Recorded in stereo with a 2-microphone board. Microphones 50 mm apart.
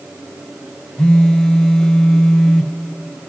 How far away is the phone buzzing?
About 0.6 m.